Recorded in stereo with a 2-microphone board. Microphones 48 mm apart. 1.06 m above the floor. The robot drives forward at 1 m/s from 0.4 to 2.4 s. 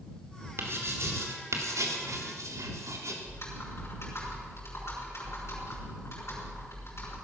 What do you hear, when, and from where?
0.6 s writing: 55° right (ahead or behind), 2.5 m; by 3.1 s 80° right, 2 m
3.2 s typing on a keyboard: 60° left (ahead or behind), 5.5 m